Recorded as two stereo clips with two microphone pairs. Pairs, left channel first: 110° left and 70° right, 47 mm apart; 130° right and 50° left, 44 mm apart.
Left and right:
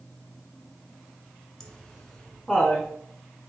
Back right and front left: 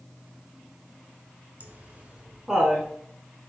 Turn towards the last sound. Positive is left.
turn(degrees=150)